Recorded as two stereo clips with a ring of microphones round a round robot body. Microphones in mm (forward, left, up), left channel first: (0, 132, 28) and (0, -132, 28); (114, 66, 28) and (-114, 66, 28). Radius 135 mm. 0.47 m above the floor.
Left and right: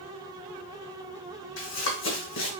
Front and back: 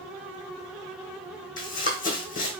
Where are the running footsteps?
50° left, 1.2 m.